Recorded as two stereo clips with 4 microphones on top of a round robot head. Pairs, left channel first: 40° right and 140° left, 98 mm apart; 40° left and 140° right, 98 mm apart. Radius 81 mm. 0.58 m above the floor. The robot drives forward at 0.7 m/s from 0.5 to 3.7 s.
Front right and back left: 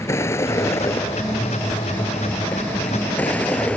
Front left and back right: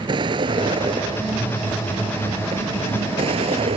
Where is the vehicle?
100° right; by 3.8 s 115° right.